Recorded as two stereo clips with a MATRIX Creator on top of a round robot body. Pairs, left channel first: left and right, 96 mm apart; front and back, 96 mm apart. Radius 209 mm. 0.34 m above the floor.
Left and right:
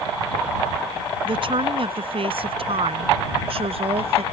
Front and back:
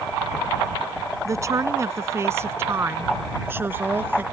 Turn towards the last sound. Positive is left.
turn(degrees=-110)